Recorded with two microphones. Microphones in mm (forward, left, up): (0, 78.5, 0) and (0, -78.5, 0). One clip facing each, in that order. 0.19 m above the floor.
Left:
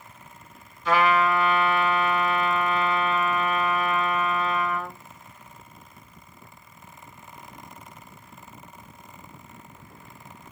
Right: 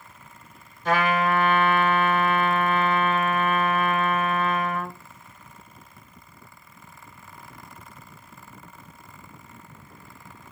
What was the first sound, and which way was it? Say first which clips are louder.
A trumpet: left 1 dB; 40° right (ahead or behind).